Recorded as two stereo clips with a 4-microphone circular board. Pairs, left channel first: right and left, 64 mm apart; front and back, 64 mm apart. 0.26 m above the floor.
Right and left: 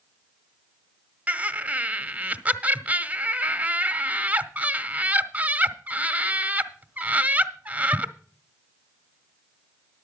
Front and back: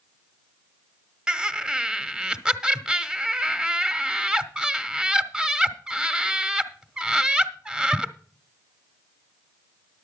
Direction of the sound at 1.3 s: 115° left.